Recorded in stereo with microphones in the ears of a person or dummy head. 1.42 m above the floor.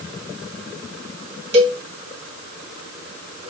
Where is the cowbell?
30° right (ahead or behind), 1.7 m.